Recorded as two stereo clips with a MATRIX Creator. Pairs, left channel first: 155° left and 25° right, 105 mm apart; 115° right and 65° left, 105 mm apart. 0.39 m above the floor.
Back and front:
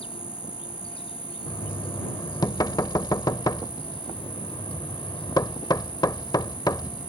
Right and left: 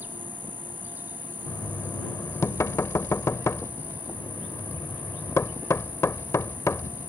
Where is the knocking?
165° right.